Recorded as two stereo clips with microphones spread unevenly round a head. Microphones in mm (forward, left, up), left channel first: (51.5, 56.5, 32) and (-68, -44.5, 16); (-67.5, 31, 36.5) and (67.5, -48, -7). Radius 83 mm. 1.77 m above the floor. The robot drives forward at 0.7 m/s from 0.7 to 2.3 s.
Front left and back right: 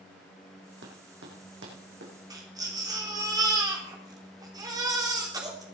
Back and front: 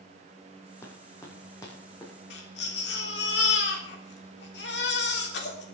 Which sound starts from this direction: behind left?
A baby crying, at 2.3 s.